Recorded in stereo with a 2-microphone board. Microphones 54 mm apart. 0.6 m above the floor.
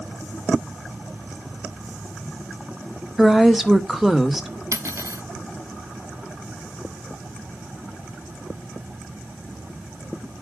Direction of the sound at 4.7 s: 65° right (ahead or behind).